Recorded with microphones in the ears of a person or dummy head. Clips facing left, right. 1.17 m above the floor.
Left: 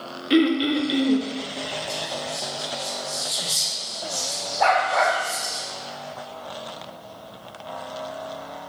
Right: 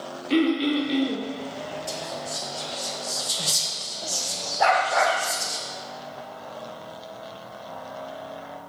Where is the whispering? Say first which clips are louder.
Left 2 dB; 70° right (ahead or behind), 2.0 m.